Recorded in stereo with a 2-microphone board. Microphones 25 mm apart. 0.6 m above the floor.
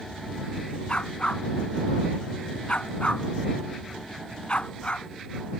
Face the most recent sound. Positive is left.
turn(degrees=50)  # may be behind; listen again after turning